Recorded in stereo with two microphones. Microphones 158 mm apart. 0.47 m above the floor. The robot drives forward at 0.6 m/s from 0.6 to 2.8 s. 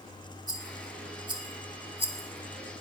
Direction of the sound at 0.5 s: 25° right (ahead or behind).